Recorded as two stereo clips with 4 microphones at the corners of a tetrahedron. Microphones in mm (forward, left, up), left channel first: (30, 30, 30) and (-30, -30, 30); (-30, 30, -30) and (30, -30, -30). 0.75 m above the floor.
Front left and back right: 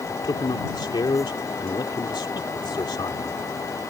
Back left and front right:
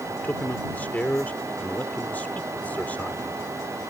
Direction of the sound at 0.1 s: 65° left.